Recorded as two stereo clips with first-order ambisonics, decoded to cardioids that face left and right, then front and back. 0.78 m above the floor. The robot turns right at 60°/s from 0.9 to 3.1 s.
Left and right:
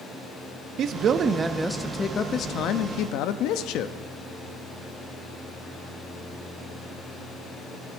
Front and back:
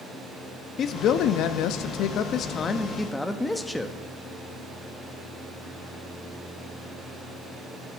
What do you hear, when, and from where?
0.8 s a man speaking: 45° right, 0.7 m; by 4.0 s 85° left, 0.7 m